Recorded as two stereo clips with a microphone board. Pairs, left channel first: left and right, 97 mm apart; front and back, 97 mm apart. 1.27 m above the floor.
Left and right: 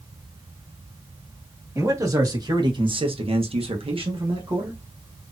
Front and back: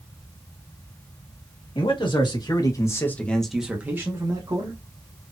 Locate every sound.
1.8 s a man speaking: 30° right, 1.9 m; by 4.8 s 135° right, 1.7 m